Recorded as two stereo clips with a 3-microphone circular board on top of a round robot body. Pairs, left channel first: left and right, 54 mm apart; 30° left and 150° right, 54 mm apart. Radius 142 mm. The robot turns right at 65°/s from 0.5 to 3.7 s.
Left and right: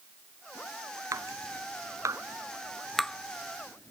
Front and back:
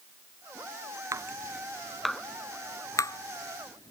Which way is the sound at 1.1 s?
120° right.